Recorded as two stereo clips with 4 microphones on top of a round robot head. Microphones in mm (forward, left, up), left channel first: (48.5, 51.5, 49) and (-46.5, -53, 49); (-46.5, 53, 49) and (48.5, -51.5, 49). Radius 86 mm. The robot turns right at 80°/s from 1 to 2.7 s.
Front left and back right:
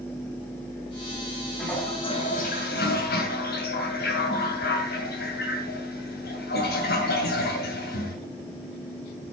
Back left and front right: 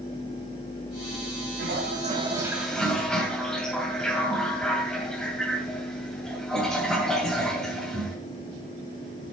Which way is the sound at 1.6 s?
45° right.